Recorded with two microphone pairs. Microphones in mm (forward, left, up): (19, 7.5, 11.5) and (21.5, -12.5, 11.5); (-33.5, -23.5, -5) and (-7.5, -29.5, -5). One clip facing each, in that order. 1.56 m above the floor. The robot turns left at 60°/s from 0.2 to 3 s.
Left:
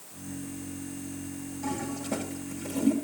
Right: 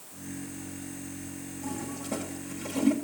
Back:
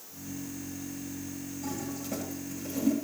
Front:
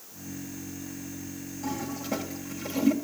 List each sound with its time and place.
1.6 s a toilet flushing: 45° left, 1.6 m; by 2.9 s 35° right, 1.6 m